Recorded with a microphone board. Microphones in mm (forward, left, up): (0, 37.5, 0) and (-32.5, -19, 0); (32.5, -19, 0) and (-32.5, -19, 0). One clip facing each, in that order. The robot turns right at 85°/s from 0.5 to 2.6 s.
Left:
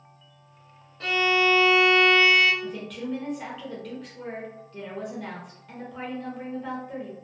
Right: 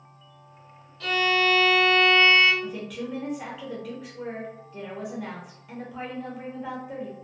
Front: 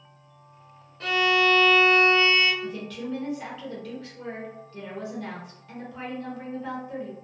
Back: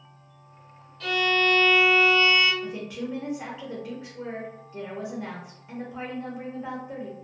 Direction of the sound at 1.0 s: 30° left.